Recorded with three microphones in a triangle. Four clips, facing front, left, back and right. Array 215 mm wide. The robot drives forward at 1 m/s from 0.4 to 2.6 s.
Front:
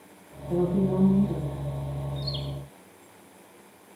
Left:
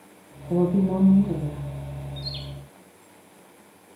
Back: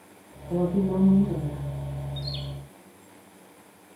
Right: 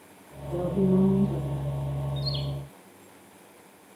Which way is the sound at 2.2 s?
70° left.